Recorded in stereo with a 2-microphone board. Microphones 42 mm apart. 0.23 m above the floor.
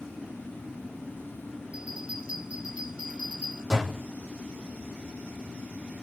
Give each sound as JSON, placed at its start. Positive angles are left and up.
{"t": 1.7, "sound": "a bell", "side_deg": -25, "distance_m": 7.5}
{"t": 3.7, "sound": "a door slam", "side_deg": -5, "distance_m": 7.5}